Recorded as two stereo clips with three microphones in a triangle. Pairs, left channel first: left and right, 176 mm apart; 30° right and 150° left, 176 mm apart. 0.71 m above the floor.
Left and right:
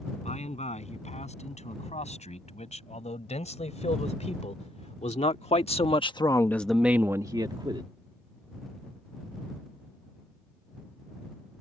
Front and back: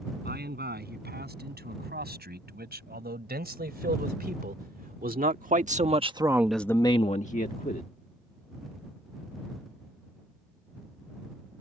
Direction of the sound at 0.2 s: 135° left.